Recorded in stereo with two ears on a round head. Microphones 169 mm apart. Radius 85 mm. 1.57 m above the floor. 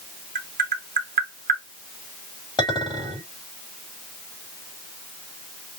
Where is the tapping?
40° right (ahead or behind), 1.2 m.